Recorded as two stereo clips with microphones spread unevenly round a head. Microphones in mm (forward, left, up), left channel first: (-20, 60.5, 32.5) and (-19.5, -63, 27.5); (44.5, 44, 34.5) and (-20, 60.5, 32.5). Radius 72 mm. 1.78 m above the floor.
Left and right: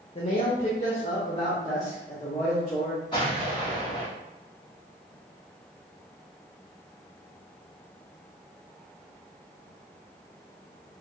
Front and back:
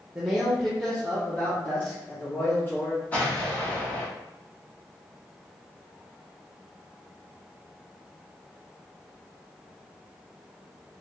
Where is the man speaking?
85° left, 0.7 m; by 3.0 s 40° left, 2.0 m.